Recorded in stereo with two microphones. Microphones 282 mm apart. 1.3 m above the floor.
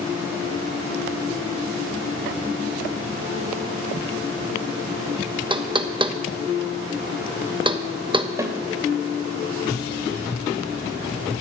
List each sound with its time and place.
5.5 s knocking: 15° right (ahead or behind), 1.1 m
8.4 s a snare drum: 10° right (ahead or behind), 2 m